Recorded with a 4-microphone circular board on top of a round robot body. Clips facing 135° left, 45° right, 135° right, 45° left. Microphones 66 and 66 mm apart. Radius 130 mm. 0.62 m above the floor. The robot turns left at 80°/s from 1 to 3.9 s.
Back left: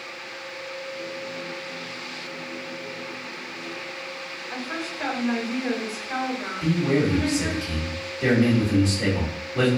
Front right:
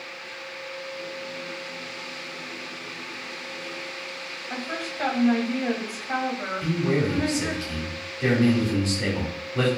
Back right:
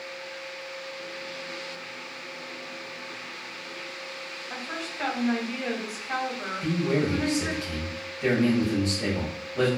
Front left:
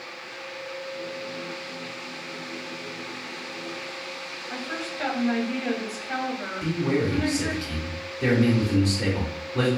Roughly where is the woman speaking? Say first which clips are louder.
Even, front left 3 dB; ahead right.